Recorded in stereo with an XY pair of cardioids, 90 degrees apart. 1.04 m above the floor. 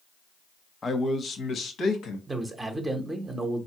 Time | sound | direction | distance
0.8 | a man speaking | 35° left | 0.8 m
2.3 | a man speaking | 25° right | 0.7 m